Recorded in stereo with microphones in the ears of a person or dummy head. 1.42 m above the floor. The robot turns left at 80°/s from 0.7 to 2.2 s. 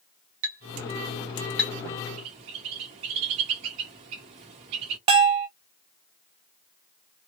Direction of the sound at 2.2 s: 20° right (ahead or behind).